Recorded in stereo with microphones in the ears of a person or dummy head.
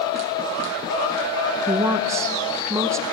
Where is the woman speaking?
15° right (ahead or behind), 0.7 m.